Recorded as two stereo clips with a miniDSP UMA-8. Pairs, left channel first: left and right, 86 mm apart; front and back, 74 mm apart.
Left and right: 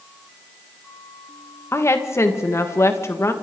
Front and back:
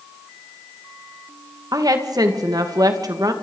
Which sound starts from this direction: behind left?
A woman speaking, at 1.7 s.